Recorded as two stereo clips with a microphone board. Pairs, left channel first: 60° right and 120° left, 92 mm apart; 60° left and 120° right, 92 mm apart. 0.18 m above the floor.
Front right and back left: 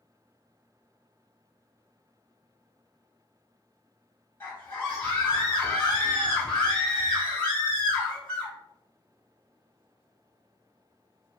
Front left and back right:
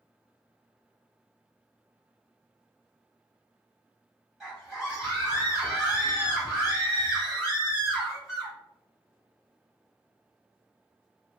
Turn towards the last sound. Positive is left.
turn(degrees=-35)